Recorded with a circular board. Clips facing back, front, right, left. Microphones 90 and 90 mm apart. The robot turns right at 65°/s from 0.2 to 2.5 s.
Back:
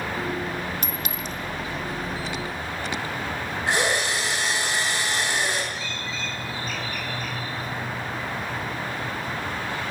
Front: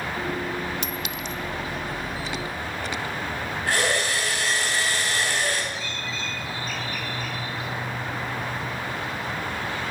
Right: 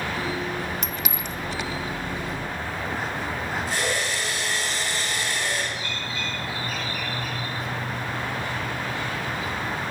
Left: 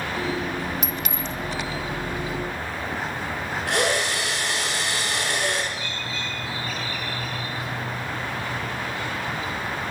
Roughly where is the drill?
Left.